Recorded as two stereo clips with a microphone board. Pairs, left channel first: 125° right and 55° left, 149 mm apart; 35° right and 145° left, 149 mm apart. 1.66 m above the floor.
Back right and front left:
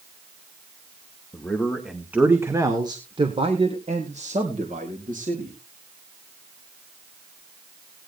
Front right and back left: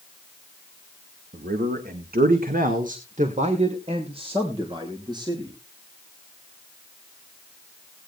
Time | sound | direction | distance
1.3 | a man speaking | 155° left | 1.5 m